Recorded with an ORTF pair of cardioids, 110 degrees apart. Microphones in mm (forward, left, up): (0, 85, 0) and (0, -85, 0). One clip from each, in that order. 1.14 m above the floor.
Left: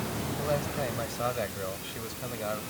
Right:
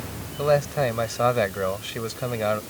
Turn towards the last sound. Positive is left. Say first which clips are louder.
# right 11 dB
turn(degrees=-55)